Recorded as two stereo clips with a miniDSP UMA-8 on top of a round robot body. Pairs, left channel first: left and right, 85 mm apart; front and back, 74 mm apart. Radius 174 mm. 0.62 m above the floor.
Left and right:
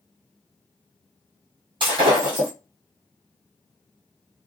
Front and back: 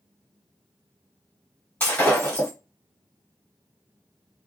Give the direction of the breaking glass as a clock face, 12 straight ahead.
2 o'clock.